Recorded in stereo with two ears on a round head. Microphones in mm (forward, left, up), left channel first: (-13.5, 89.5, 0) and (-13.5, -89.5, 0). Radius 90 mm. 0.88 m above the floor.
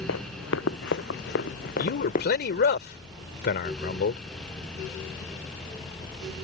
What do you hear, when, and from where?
0.1 s running footsteps: 65° left (ahead or behind); by 2.3 s 35° left (ahead or behind)
1.8 s a man speaking: 50° left (ahead or behind)